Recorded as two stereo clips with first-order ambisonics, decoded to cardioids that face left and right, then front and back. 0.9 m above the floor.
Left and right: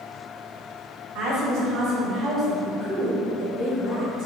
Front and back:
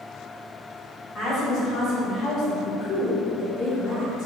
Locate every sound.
1.1 s a woman speaking: 60° right, 1.1 m; by 4.3 s 75° left, 1.1 m